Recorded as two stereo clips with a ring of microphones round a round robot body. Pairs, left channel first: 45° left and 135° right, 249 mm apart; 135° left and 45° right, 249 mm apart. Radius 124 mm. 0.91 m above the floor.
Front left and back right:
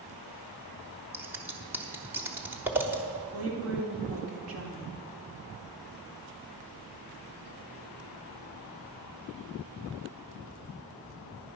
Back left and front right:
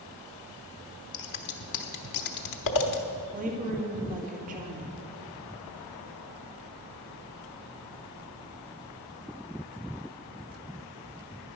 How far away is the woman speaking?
About 1.9 m.